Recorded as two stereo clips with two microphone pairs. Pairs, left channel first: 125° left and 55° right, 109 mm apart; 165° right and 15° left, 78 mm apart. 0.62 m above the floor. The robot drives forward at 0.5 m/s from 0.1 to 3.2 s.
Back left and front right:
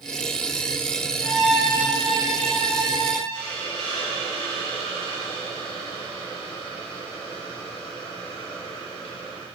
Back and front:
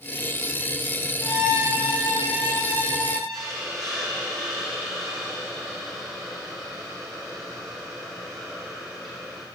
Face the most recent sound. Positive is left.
turn(degrees=105)